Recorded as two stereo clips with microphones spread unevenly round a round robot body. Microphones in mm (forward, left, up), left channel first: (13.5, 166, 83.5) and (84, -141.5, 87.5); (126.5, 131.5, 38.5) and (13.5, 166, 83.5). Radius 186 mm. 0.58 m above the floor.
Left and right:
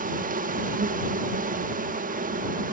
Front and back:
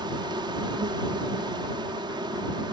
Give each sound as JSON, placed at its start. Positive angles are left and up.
{"t": 0.0, "sound": "an insect", "azimuth_deg": -130}